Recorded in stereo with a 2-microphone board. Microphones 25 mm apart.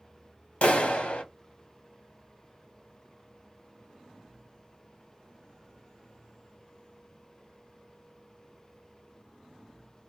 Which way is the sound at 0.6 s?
55° left (ahead or behind).